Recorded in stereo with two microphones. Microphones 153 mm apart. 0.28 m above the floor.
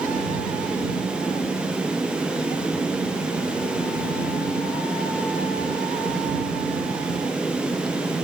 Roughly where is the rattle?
I don't hear a rattle.